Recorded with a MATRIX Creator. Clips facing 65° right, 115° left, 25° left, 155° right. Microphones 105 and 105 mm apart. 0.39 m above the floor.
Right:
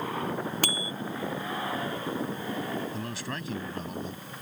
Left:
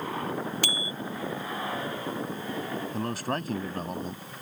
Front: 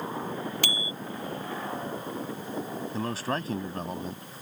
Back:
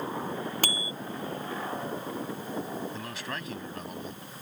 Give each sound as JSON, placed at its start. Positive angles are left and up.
{"t": 0.6, "sound": "a bicycle bell", "azimuth_deg": -110}
{"t": 2.9, "sound": "a man speaking", "azimuth_deg": 75}